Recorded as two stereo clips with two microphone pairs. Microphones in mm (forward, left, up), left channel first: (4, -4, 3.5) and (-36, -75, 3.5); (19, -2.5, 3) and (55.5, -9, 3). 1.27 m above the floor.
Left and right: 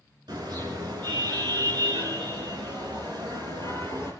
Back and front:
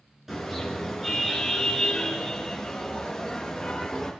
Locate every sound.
0.3 s a car horn: 90° right, 6 m; by 4.1 s 105° right, 9 m